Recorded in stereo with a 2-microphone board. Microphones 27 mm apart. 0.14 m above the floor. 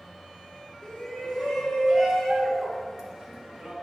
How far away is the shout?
About 1.9 m.